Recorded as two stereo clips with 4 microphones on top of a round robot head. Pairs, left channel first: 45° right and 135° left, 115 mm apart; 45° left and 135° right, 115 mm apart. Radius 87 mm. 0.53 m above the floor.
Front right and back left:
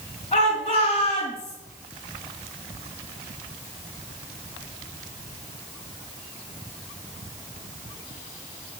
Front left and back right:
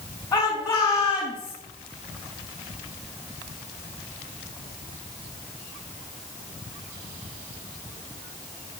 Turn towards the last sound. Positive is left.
turn(degrees=-5)